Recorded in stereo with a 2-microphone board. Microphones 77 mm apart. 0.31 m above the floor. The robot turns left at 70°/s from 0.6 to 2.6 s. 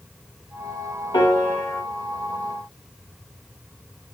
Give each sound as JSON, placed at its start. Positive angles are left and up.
{"t": 1.1, "sound": "a piano", "azimuth_deg": 90, "distance_m": 0.7}